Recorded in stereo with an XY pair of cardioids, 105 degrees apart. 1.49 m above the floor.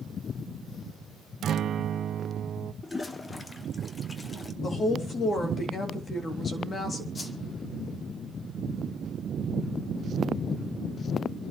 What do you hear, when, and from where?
1.4 s a guitar: 55° right, 0.7 m
2.8 s a toilet flushing: 25° left, 1.4 m
4.6 s a woman speaking: 45° left, 3.5 m
7.2 s a whoosh: 35° left, 2.5 m